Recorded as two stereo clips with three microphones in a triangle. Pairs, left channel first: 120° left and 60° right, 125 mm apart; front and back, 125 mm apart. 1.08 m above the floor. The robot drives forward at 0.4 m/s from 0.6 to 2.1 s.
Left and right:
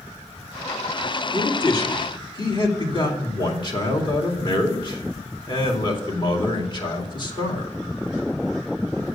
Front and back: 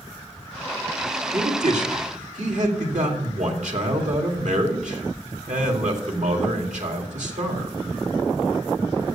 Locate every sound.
1.3 s a man speaking: 170° left, 2.0 m